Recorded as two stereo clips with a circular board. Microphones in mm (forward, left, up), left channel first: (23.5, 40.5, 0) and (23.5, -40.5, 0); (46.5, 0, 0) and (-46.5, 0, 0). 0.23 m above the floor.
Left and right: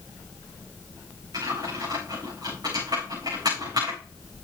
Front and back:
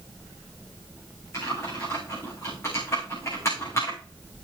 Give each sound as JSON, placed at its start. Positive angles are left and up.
{"t": 1.3, "sound": "typing on a keyboard", "azimuth_deg": -60, "distance_m": 8.5}